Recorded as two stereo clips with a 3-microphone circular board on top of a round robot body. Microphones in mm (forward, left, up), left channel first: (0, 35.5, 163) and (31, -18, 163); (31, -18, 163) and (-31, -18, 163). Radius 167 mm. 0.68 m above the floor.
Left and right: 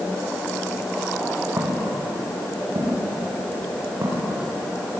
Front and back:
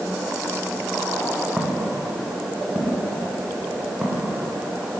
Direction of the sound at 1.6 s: 105° right.